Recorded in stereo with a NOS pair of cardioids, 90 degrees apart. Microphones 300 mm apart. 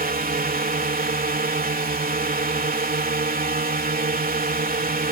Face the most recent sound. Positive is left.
turn(degrees=-30)